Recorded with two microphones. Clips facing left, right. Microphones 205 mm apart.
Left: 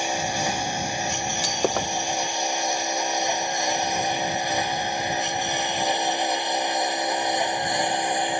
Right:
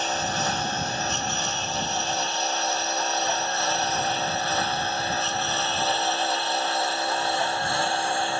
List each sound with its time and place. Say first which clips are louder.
0.0 s a lawn mower: left 2 dB; 10° left (ahead or behind); by 8.4 s 15° left (ahead or behind)
1.4 s breaking glass: left 6 dB; 85° left